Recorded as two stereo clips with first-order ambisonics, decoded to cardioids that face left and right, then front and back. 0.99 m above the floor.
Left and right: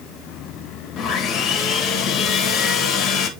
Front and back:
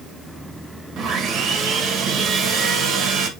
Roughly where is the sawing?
Behind left.